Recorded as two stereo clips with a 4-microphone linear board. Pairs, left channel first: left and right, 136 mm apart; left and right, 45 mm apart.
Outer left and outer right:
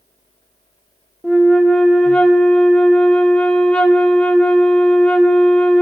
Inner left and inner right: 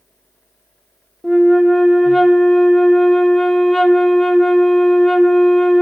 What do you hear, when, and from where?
1.2 s a flute: 5° left (ahead or behind), 0.7 m